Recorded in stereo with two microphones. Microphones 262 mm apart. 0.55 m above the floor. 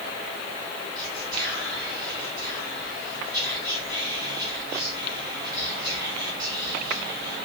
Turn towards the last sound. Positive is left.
turn(degrees=-15)  # may be behind; listen again after turning